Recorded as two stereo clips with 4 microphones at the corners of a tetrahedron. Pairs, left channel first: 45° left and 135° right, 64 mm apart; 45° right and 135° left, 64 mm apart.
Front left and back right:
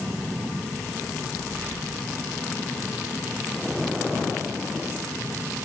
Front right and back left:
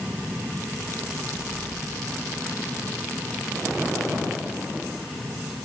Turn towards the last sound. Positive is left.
No sound to turn to.